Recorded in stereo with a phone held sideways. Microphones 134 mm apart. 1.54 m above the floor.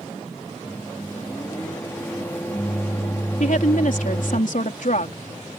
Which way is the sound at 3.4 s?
65° left (ahead or behind).